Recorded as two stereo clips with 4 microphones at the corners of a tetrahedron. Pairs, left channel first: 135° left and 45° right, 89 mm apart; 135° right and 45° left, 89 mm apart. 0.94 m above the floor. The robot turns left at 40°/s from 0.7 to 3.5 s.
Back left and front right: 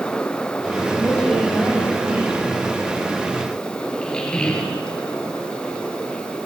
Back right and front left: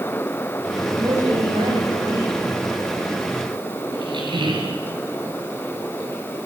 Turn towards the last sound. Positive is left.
turn(degrees=55)